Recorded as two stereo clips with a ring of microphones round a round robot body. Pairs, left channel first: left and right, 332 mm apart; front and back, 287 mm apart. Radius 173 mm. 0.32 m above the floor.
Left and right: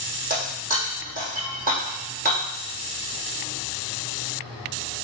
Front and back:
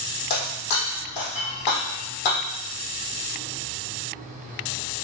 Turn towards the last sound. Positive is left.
turn(degrees=-25)